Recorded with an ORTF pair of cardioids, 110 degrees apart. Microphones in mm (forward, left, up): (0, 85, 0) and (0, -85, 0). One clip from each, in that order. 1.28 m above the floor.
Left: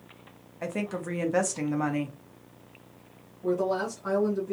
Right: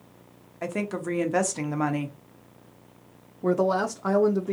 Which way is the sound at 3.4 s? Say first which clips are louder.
Right 4 dB; 50° right.